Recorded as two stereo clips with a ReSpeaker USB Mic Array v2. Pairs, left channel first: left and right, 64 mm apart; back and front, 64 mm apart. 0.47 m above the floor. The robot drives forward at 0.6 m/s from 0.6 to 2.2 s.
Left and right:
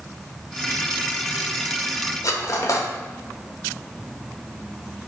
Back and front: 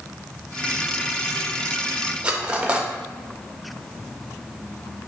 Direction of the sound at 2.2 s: 70° left.